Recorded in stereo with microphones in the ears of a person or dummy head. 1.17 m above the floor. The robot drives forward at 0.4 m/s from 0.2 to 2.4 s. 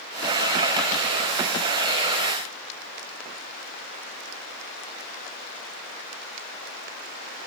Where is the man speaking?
No man speaking in this recording.